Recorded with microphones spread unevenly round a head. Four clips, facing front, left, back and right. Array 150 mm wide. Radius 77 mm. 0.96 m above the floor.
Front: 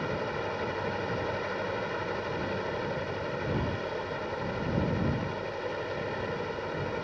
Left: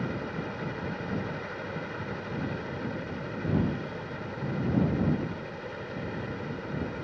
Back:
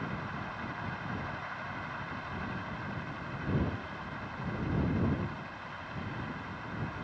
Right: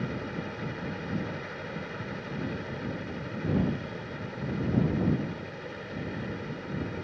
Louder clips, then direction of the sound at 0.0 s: Left 1 dB, front 7 dB; 10° left.